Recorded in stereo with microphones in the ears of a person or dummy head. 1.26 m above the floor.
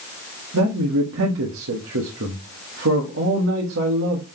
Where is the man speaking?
70° right (ahead or behind), 1.5 m.